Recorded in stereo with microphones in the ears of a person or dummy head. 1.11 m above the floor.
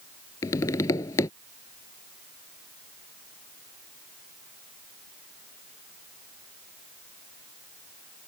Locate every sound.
0.4 s tapping: 25° left (ahead or behind)